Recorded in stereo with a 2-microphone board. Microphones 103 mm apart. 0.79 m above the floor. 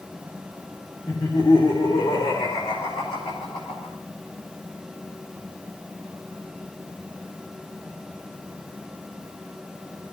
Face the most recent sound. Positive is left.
turn(degrees=75)  # may be behind; listen again after turning